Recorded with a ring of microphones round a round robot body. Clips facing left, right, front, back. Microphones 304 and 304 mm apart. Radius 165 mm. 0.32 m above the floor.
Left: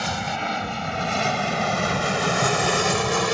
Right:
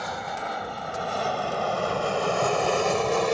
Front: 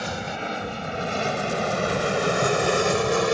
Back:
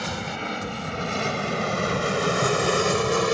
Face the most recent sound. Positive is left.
turn(degrees=100)